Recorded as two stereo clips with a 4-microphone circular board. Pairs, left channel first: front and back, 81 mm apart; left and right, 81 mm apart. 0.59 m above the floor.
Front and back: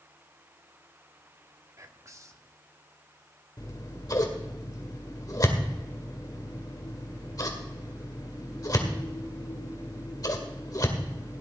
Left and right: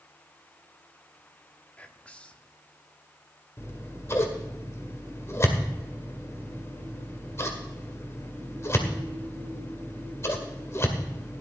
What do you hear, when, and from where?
1.8 s whispering: 160° left, 1.1 m
3.6 s scissors: 35° left, 2.0 m